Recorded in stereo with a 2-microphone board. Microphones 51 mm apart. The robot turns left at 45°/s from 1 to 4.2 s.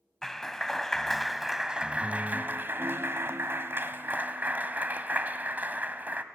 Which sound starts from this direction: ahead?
A clap, at 0.2 s.